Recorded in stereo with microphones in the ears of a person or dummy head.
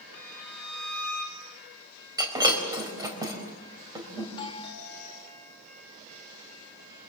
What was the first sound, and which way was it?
A violin, 10° left (ahead or behind).